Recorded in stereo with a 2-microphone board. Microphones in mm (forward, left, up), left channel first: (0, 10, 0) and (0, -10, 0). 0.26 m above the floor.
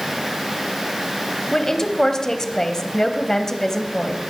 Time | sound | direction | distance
1.5 | a woman speaking | 25° left (ahead or behind) | 1.3 m